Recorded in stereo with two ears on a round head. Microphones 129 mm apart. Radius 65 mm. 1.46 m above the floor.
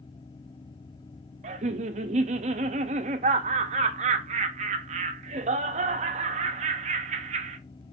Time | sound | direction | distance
1.4 | laughter | 50° right (ahead or behind) | 0.6 m